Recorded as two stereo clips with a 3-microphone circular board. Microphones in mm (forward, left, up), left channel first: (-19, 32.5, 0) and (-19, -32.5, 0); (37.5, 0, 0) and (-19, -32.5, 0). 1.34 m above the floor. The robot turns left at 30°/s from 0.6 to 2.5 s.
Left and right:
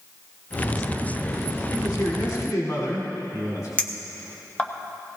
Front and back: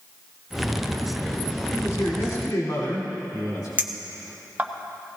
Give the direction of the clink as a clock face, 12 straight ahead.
7 o'clock.